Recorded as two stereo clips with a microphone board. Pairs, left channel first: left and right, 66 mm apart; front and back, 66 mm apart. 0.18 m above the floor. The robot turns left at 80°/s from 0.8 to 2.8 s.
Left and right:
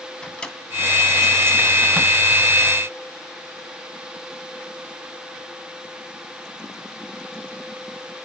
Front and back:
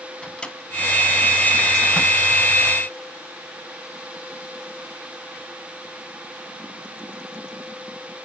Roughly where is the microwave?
Ahead left.